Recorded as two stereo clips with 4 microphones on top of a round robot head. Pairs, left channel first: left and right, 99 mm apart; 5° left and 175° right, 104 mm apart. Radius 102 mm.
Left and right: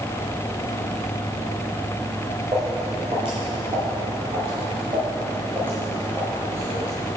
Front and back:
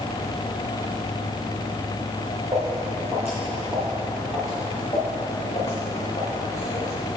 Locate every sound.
2.5 s footsteps: 125° right, 2.0 m; by 6.9 s 20° right, 2.5 m